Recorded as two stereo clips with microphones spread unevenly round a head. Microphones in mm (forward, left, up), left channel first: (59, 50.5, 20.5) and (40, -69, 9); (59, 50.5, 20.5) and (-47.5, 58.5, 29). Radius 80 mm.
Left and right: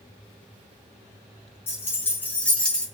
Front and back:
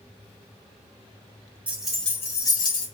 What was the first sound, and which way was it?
Keys jangling, 120° left.